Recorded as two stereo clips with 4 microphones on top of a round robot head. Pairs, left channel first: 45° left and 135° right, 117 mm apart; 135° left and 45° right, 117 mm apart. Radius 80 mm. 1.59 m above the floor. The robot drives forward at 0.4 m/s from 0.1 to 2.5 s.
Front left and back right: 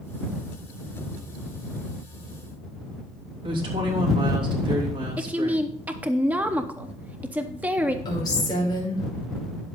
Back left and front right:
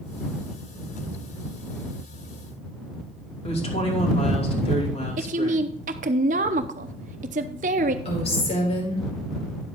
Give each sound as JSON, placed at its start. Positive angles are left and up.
{"t": 3.4, "sound": "a woman speaking", "azimuth_deg": 175, "distance_m": 3.0}
{"t": 5.2, "sound": "a woman speaking", "azimuth_deg": -60, "distance_m": 0.8}
{"t": 8.1, "sound": "a woman speaking", "azimuth_deg": 100, "distance_m": 5.5}